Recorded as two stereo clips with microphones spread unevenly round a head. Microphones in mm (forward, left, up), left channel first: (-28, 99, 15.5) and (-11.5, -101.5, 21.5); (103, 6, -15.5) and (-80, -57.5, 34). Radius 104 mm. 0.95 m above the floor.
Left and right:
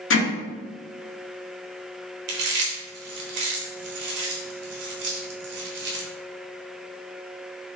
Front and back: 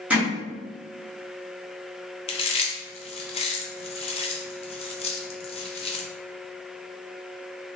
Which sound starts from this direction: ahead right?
Chewing, at 2.3 s.